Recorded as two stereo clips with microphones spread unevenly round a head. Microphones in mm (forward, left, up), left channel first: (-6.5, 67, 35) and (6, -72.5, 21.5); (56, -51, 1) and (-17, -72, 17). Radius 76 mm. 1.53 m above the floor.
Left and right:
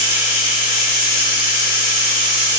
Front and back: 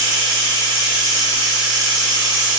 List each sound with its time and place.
0.0 s running water: 65° left, 2.5 m